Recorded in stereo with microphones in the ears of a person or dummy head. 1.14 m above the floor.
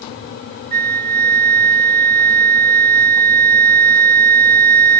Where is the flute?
50° right (ahead or behind).